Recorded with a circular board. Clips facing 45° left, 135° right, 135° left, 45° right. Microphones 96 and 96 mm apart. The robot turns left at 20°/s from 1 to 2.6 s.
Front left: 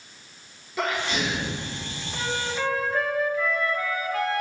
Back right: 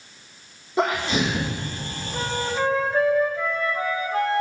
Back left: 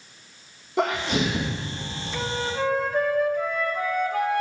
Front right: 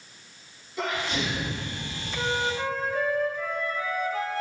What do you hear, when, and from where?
0.8 s a sneeze: 165° left, 1.3 m; by 1.6 s 155° left, 1.3 m
2.1 s a flute: 170° left, 1.3 m; by 4.4 s 165° left, 1.3 m